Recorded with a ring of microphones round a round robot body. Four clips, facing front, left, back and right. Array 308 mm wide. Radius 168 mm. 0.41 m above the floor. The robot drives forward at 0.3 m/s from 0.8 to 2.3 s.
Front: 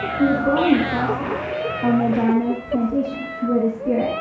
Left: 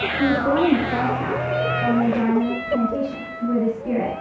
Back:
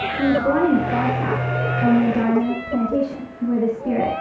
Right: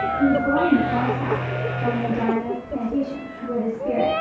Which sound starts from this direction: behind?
A woman speaking, at 0.2 s.